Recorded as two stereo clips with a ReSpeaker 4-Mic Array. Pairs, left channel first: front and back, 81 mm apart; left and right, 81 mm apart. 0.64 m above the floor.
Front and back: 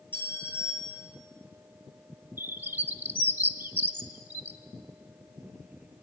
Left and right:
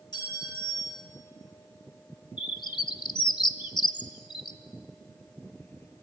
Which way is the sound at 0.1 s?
65° left.